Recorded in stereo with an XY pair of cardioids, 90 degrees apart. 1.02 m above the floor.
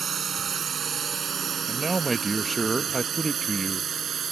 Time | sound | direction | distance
0.0 | a drone | 50° right | ?
1.7 | a man speaking | 25° right | ?